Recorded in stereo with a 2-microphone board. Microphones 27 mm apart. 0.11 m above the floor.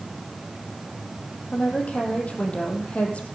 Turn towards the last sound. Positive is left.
turn(degrees=50)  # may be behind; listen again after turning